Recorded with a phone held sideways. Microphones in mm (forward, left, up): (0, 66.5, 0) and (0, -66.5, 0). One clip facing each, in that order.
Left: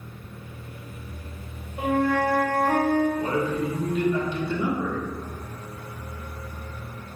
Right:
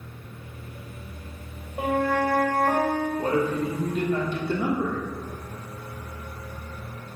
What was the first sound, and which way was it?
A flute, 40° right (ahead or behind).